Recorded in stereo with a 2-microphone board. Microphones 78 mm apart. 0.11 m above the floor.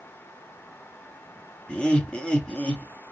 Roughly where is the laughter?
Centre.